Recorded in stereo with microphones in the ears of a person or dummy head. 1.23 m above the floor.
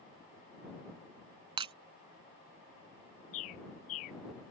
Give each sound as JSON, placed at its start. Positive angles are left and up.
{"t": 1.6, "sound": "breaking glass", "side_deg": -30}
{"t": 3.3, "sound": "a bird", "side_deg": 40}